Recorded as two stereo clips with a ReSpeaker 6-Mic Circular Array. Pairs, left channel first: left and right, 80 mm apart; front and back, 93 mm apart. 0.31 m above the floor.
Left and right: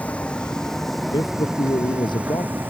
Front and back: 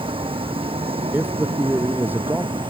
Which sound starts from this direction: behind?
A vehicle, at 0.0 s.